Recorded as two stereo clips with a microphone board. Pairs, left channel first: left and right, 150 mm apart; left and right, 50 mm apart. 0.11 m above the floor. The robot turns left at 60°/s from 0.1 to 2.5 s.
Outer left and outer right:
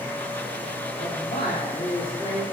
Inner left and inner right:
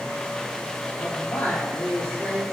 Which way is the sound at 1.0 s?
105° left.